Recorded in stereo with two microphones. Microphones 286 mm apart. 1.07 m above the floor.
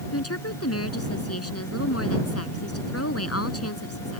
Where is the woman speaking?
60° left (ahead or behind).